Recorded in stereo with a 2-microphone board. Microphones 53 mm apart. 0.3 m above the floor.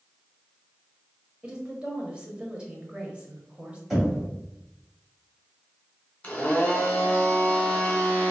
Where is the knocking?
5° right (ahead or behind), 1.7 m.